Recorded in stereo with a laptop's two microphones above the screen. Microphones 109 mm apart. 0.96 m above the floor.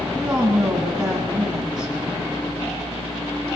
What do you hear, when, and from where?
0.1 s a woman speaking: 5° right (ahead or behind), 7 m